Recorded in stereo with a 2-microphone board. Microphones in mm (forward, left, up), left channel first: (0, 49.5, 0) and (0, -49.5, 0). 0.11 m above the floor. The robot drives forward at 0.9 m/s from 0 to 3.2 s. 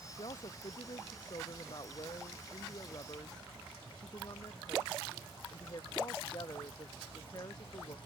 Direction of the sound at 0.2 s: 55° left (ahead or behind).